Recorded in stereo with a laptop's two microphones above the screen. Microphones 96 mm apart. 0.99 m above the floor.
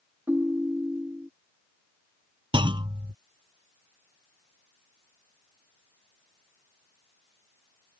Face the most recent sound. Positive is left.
turn(degrees=-60)  # may be behind; listen again after turning